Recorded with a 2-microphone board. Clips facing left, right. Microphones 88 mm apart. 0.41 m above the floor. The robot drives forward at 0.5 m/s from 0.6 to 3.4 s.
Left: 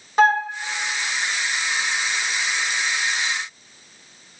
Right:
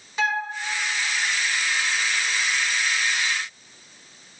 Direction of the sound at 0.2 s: 45° left (ahead or behind).